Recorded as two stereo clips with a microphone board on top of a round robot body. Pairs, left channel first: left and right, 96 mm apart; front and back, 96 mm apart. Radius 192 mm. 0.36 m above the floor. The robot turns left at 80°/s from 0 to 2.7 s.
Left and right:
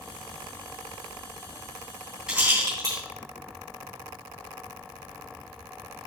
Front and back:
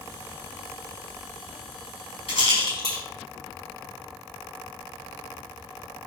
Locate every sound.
2.3 s a rattle: 5° right, 4 m; by 3.0 s 40° right, 4 m